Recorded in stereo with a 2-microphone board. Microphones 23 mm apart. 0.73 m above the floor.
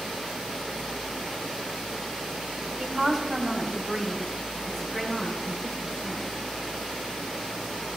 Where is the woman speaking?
30° right (ahead or behind), 4 m; by 6.3 s centre (ahead or behind), 8.5 m.